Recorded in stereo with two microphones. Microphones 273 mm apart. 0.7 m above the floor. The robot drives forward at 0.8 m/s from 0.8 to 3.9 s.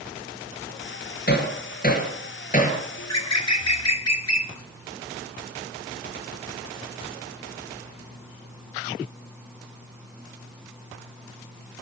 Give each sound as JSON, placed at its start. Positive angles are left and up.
{"t": 1.3, "sound": "hammering", "side_deg": 35, "distance_m": 5.0}
{"t": 3.0, "sound": "a bird", "side_deg": 65, "distance_m": 1.3}